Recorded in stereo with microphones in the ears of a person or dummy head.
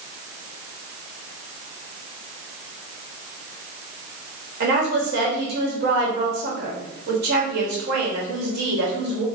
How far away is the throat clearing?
No throat clearing in this recording.